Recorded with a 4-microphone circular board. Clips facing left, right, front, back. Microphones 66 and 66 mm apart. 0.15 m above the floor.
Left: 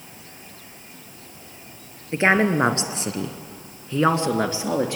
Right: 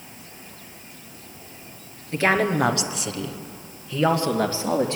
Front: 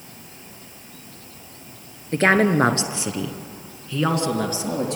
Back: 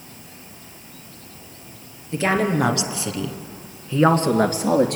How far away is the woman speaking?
About 2.5 m.